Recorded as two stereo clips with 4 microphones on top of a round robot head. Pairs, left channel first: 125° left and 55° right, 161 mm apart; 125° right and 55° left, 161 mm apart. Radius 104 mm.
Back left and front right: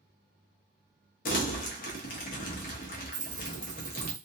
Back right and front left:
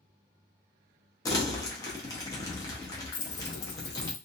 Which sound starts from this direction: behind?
Crumpling, at 1.2 s.